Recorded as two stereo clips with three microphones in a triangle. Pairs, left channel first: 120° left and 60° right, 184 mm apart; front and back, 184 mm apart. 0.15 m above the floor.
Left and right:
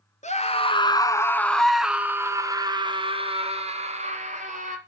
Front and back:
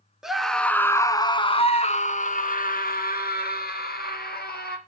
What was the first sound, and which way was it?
A scream, 95° left.